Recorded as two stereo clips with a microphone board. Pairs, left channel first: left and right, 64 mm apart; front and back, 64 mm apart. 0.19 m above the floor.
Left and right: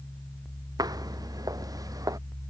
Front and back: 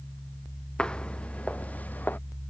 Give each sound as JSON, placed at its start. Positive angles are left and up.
{"t": 0.8, "sound": "footsteps", "azimuth_deg": -75}